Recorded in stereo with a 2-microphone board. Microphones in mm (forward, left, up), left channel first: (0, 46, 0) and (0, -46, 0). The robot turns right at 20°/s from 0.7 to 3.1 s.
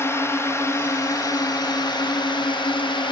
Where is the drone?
30° left (ahead or behind); by 3.1 s 65° left (ahead or behind).